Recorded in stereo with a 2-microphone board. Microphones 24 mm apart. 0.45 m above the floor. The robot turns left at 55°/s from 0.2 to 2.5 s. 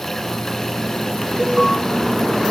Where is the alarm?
Centre (ahead or behind), 7 m; by 1.8 s 20° left (ahead or behind), 7 m.